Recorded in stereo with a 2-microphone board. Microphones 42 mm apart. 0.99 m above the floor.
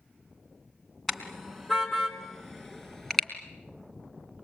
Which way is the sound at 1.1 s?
5° left (ahead or behind).